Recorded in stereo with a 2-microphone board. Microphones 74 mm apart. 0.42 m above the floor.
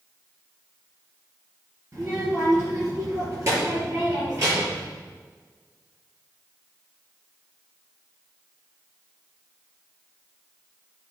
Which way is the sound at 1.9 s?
40° right (ahead or behind).